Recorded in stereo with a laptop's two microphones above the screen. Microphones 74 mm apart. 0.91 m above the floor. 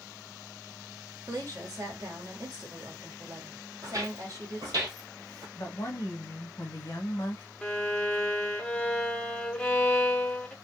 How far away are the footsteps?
About 1.9 m.